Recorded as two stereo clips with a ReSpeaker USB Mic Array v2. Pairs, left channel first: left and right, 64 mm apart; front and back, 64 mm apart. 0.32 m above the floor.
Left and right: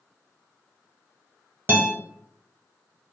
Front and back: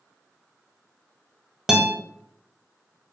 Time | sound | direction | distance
1.7 | a guitar | 105° right | 0.9 m